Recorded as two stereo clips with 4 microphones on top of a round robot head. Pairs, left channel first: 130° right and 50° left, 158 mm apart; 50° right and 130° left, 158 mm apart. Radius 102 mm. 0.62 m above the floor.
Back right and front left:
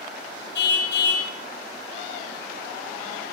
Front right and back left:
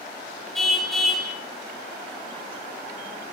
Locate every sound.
0.6 s a car horn: 140° right, 5 m